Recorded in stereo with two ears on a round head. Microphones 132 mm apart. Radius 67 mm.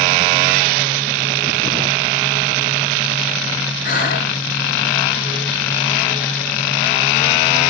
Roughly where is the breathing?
Left.